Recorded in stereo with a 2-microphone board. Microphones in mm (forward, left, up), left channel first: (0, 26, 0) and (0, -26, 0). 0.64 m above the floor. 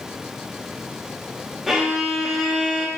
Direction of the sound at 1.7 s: 5° right (ahead or behind).